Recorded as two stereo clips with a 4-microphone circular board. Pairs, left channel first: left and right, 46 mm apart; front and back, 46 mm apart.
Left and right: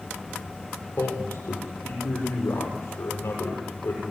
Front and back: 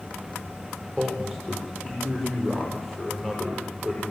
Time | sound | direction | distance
1.0 | a man speaking | 85° left | 7.5 m